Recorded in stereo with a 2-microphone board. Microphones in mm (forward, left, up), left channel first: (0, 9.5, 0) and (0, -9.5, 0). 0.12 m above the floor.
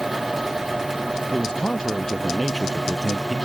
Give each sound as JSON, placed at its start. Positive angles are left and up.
{"t": 1.3, "sound": "a man speaking", "side_deg": 40}